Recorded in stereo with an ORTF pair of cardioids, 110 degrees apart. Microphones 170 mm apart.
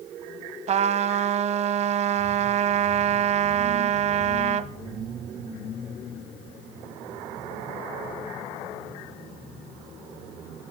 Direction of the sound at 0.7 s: 40° right.